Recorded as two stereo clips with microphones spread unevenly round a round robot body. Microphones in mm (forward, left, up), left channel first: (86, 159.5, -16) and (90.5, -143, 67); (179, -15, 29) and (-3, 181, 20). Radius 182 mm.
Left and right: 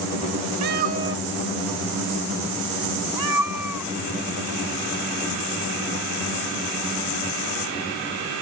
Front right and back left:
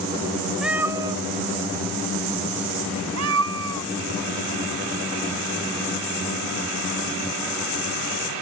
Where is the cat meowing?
135° right; by 3.9 s 175° right.